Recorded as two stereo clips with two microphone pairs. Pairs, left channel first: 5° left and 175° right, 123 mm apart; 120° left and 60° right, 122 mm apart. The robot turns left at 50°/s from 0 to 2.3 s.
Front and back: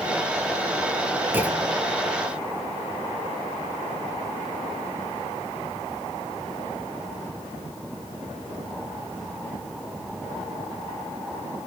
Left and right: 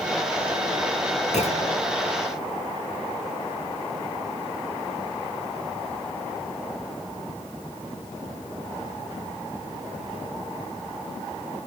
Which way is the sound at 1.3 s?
115° left.